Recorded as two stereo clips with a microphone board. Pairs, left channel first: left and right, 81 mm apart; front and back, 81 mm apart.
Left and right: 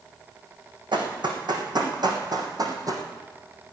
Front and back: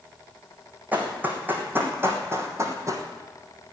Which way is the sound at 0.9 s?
110° right.